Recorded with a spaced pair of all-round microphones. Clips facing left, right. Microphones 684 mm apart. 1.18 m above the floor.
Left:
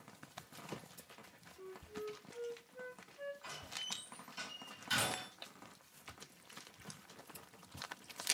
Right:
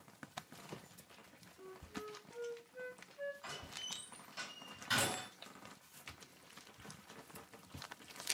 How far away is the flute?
About 1.4 m.